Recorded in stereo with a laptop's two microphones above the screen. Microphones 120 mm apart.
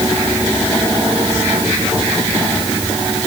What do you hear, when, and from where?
Only background noise.